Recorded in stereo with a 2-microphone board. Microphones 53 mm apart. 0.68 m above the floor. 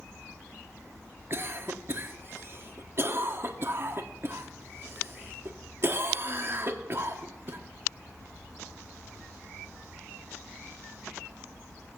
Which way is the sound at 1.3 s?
45° right (ahead or behind).